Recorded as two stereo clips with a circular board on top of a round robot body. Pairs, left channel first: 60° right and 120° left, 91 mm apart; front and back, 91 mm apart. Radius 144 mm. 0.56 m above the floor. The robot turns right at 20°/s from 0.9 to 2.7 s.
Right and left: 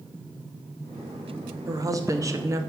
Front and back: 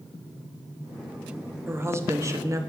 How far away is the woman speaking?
About 1.3 m.